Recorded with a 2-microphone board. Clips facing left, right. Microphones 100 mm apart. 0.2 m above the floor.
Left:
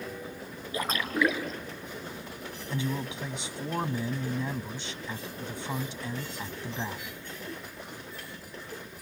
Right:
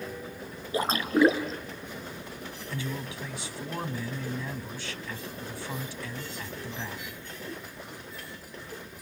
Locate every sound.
0.7 s a splash: 30° right (ahead or behind), 2.5 m
2.7 s a man speaking: 25° left (ahead or behind), 1.1 m